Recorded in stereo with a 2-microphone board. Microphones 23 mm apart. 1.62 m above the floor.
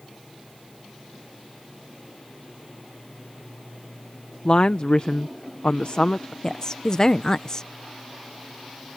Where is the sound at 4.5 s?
50° left (ahead or behind).